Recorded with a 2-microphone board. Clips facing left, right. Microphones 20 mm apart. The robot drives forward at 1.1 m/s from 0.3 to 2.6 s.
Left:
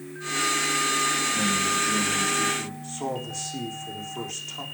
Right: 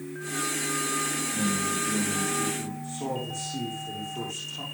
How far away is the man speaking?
About 5.5 m.